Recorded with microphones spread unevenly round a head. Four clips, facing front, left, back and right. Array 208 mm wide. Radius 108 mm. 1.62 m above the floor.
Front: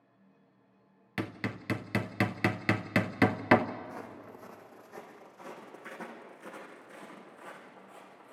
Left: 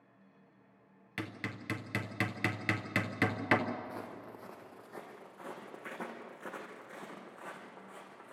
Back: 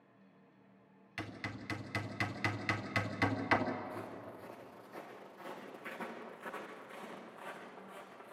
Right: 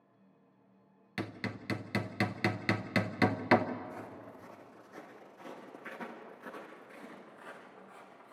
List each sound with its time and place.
1.2 s hammering: 10° right, 0.7 m
3.8 s footsteps: 50° left, 3 m; by 8.3 s 85° left, 5 m